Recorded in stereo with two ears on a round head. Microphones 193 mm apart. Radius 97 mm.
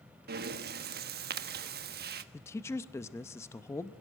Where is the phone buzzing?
No phone buzzing in this recording.